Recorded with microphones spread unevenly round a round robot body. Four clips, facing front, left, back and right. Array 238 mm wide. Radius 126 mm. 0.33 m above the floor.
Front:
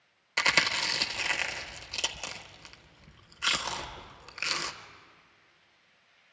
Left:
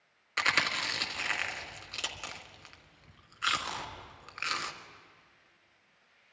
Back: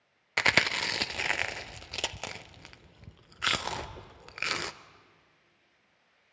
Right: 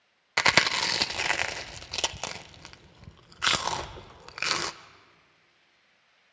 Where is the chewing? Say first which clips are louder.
Right 6 dB, back 1 dB; 110° right, 0.6 m.